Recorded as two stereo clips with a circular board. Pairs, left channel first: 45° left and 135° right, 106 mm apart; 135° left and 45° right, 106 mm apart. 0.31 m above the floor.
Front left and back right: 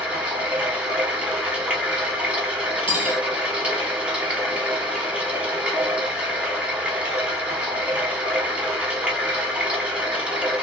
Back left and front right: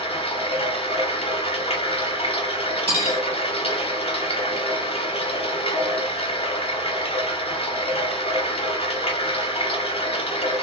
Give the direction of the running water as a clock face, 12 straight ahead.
7 o'clock.